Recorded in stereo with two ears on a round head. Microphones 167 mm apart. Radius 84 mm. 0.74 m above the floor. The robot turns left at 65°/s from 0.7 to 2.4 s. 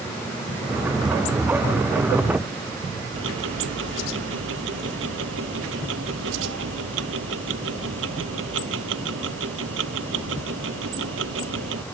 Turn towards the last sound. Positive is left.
turn(degrees=-70)  # may be behind; listen again after turning